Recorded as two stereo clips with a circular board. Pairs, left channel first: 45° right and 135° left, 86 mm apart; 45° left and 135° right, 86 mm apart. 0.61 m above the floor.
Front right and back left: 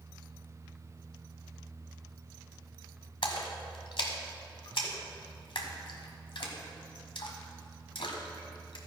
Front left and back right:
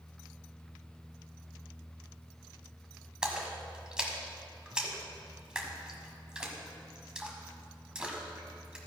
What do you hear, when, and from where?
3.2 s a splash: 55° right, 1.2 m